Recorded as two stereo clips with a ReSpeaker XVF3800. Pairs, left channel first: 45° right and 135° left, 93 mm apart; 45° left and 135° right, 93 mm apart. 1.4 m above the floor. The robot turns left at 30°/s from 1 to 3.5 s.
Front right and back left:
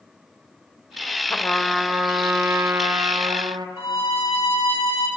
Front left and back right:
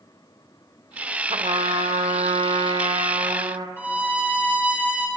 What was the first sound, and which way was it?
A trumpet, 115° right.